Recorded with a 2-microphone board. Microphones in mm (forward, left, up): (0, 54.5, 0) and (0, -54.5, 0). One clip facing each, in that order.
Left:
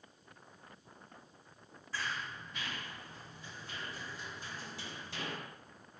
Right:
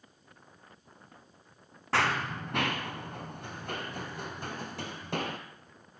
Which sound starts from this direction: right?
Running footsteps, at 1.9 s.